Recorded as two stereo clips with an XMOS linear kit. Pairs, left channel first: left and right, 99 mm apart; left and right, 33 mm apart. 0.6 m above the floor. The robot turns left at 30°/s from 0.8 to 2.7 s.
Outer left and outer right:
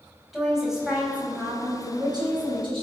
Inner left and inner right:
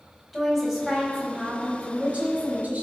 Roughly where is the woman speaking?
Ahead.